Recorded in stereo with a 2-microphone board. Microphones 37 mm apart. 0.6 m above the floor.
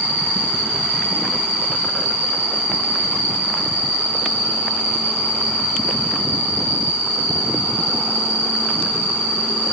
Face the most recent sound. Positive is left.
turn(degrees=40)  # may be behind; listen again after turning